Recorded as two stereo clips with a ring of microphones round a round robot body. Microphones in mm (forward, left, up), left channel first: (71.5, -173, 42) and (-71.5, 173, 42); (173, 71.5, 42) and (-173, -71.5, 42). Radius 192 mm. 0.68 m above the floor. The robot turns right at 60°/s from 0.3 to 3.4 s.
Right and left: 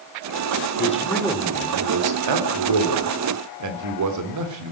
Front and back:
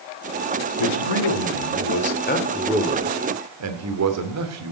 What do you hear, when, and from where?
0.8 s a man speaking: straight ahead, 2 m; by 4.7 s 155° left, 2 m